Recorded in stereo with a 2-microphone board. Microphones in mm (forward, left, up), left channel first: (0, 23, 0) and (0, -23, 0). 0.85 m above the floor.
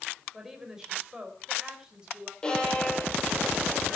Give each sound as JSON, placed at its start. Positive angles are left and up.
{"t": 0.3, "sound": "a woman speaking", "side_deg": -10, "distance_m": 4.0}
{"t": 2.4, "sound": "a violin", "side_deg": 15, "distance_m": 8.0}